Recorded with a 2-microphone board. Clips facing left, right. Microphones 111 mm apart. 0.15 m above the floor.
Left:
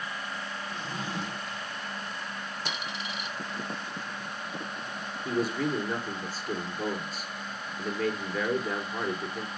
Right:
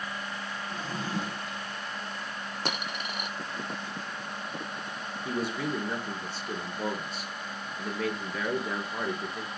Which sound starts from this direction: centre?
A man speaking, at 5.2 s.